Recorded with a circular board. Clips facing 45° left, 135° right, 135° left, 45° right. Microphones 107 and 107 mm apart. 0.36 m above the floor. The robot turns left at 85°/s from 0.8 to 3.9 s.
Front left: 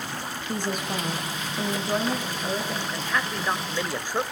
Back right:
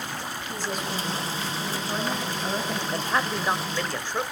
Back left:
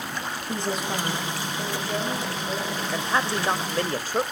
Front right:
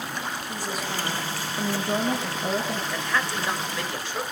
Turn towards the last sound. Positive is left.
turn(degrees=120)